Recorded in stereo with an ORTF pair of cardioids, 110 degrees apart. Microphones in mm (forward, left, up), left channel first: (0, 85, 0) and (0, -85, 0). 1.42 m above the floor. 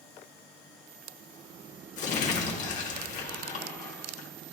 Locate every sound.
2.0 s crumpling: 50° left, 1.3 m